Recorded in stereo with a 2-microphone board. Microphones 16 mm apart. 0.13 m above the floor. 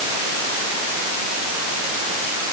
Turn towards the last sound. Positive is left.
No sound to turn to.